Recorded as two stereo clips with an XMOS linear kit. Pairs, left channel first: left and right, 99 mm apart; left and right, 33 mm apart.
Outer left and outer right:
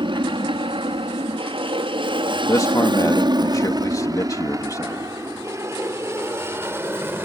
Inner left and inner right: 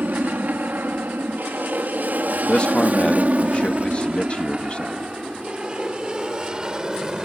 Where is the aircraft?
60° right (ahead or behind); by 7.2 s 20° right (ahead or behind).